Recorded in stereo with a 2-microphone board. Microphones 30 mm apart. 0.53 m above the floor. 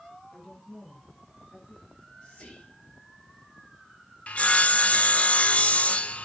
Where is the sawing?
45° left (ahead or behind), 0.6 m.